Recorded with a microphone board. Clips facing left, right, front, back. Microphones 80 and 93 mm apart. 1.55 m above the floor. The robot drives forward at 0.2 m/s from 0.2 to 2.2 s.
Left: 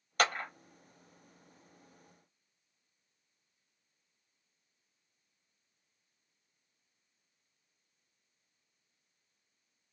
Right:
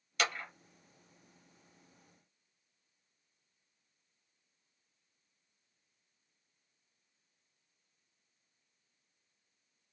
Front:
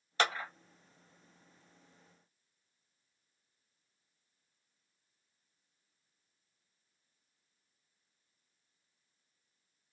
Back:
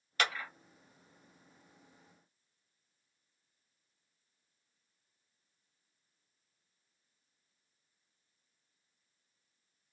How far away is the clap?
About 1.0 m.